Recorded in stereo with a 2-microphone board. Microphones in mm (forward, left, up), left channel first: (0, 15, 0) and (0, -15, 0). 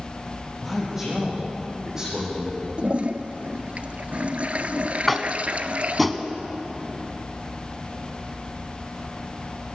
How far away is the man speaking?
About 7 m.